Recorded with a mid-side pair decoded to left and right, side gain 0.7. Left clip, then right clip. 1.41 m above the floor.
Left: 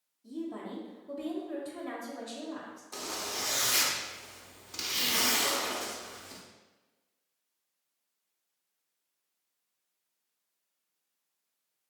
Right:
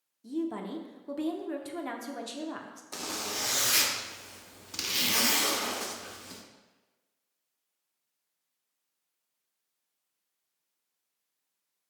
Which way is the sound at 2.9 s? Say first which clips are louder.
Right 2 dB; 25° right.